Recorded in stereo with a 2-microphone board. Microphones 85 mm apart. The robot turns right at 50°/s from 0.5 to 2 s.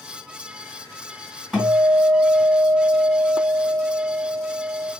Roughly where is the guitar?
Centre.